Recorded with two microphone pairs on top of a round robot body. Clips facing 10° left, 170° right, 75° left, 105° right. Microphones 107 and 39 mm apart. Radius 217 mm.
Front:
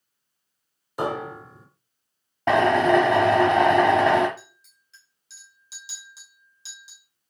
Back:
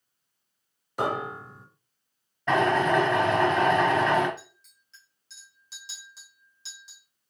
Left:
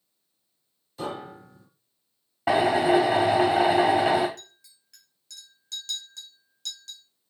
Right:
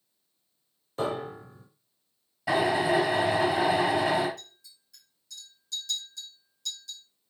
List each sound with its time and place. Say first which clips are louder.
1.0 s a piano: front 1 dB, right 3 dB; 75° right, 0.7 m
2.5 s a drill: front 4 dB, left 4 dB; 25° left, 0.5 m
4.4 s a clink: front 2 dB, even; 95° left, 1.6 m